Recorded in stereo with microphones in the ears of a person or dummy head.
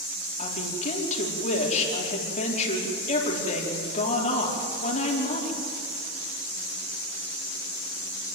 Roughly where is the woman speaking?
Left.